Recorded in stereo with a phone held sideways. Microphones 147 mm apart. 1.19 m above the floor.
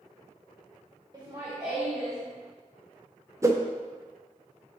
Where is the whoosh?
20° right (ahead or behind), 0.6 m.